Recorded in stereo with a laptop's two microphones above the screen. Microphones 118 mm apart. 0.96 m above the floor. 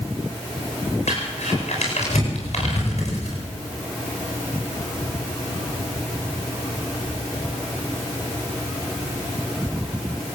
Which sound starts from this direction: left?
Crumpling, at 1.1 s.